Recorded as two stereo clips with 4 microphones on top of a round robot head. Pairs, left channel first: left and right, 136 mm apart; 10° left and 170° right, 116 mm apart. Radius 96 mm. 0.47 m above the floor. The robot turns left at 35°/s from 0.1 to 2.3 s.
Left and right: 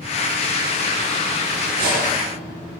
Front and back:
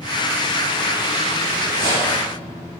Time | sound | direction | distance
1.6 | cutlery clinking | 85° right | 4.5 m